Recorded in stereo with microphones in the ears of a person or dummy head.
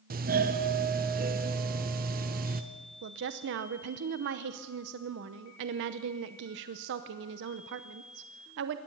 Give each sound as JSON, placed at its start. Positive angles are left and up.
{"t": 0.1, "sound": "a doorbell", "side_deg": -40, "distance_m": 1.0}
{"t": 3.0, "sound": "a woman speaking", "side_deg": -55, "distance_m": 0.8}